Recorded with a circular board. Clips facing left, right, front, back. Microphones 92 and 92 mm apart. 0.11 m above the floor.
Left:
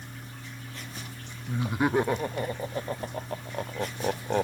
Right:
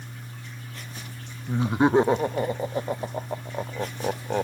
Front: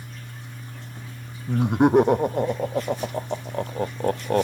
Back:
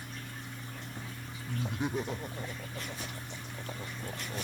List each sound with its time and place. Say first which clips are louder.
1.5 s laughter: right 6 dB, front 16 dB; 25° right; by 4.4 s straight ahead